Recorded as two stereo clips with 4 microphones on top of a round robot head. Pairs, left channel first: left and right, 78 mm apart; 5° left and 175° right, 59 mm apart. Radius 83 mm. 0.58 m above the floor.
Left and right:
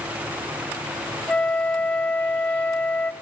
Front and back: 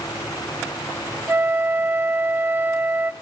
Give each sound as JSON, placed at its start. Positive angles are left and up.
{"t": 1.3, "sound": "a flute", "azimuth_deg": 155, "distance_m": 0.7}